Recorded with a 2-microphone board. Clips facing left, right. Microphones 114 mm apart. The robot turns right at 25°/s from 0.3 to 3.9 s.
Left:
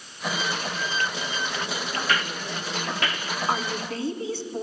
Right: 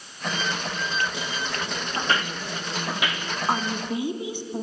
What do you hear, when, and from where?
2.0 s footsteps: 30° right (ahead or behind), 1.9 m; by 3.3 s 5° right (ahead or behind), 3 m
3.5 s a woman speaking: 10° right (ahead or behind), 1.4 m; by 4.6 s 15° right (ahead or behind), 1.4 m